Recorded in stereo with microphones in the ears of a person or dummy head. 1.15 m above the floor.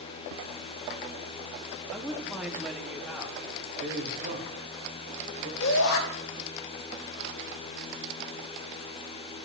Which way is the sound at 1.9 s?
Centre (ahead or behind).